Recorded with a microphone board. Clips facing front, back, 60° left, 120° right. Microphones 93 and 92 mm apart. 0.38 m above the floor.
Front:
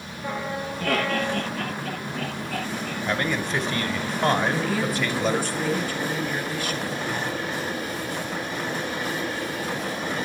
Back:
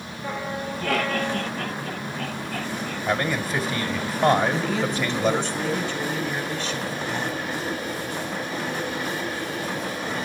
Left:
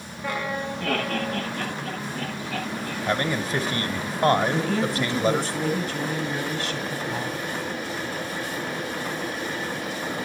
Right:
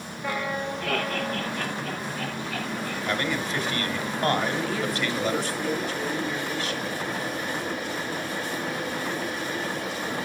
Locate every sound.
0.8 s laughter: 25° left, 9.5 m; by 3.0 s 5° left, 9.5 m
3.1 s a man speaking: 100° left, 1.1 m
4.5 s a woman speaking: 80° left, 2.5 m